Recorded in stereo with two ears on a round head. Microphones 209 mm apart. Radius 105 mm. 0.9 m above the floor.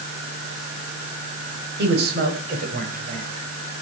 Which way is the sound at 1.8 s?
45° right (ahead or behind).